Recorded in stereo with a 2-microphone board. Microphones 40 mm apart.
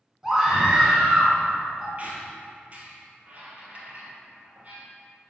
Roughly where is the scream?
Centre.